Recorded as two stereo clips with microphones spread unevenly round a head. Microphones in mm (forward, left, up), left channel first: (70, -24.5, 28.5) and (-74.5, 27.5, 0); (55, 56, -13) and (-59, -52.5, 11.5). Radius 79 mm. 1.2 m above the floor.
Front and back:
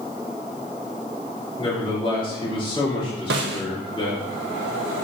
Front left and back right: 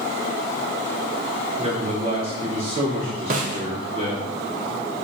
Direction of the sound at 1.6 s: 80° right.